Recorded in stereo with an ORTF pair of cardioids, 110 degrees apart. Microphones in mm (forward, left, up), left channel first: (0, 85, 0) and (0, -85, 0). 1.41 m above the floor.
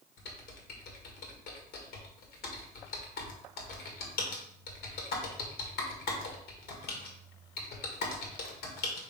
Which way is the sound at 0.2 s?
70° left.